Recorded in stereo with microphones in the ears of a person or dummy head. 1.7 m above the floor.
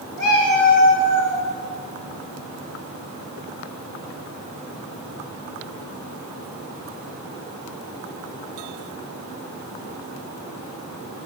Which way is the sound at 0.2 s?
Centre (ahead or behind).